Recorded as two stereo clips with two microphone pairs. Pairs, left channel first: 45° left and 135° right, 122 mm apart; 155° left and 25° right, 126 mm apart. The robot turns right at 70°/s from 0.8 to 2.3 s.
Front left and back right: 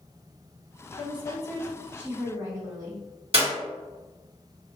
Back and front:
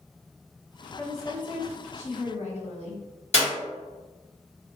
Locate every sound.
1.0 s a woman speaking: 75° left, 1.0 m; by 3.0 s 170° left, 1.0 m
3.3 s a clap: 170° right, 1.8 m